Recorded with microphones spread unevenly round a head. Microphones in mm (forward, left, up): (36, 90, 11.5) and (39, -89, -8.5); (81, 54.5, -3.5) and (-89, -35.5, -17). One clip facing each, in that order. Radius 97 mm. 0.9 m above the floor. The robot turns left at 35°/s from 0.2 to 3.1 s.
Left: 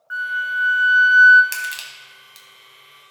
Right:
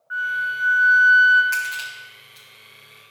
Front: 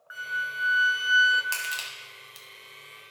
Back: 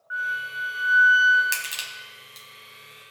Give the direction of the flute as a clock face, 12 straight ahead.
10 o'clock.